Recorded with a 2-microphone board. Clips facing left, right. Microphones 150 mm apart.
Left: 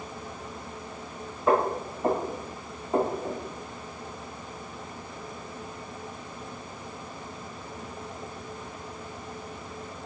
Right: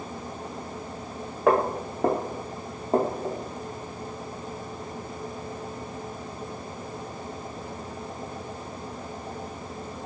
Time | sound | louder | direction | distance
1.5 | footsteps | right 2 dB | 80° right | 1.4 m